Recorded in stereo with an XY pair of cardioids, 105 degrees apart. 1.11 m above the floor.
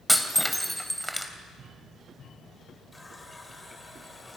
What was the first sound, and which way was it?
Breaking glass, straight ahead.